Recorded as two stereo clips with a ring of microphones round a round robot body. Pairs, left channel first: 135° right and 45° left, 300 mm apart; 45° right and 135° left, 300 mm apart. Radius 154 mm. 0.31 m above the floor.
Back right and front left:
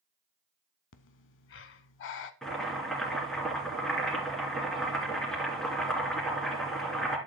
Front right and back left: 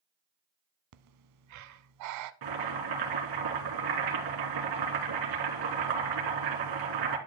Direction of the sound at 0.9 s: 170° left.